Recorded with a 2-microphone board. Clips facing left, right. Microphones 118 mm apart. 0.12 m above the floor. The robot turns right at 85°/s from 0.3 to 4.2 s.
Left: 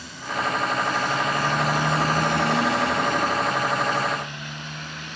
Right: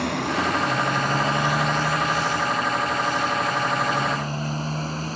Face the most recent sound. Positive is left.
turn(degrees=-35)  # may be behind; listen again after turning